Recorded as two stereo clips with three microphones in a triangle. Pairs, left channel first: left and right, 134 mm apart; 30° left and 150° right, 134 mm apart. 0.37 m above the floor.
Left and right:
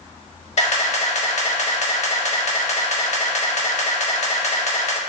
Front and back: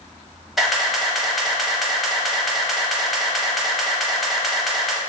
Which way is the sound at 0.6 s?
120° left.